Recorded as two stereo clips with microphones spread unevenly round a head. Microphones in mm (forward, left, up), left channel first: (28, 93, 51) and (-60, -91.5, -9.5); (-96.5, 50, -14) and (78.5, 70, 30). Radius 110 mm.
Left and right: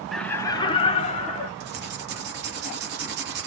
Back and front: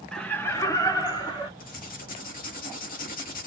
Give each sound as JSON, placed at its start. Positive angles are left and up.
{"t": 0.1, "sound": "laughter", "azimuth_deg": -145, "distance_m": 0.5}
{"t": 1.6, "sound": "writing", "azimuth_deg": -145, "distance_m": 0.7}